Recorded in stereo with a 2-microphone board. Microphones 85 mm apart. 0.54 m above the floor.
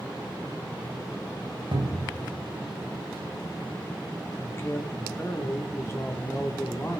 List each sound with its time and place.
1.7 s a cupboard door: 75° right (ahead or behind), 1.6 m
4.4 s a man speaking: 35° left (ahead or behind), 0.8 m